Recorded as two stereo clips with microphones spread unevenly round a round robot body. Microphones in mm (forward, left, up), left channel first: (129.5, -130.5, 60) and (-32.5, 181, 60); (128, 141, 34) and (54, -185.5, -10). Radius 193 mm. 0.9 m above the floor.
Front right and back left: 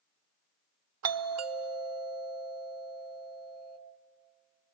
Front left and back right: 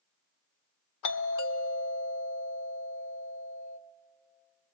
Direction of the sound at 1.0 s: 95° left.